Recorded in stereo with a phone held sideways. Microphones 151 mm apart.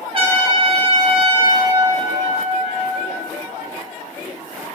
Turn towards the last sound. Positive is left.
turn(degrees=-40)  # may be behind; listen again after turning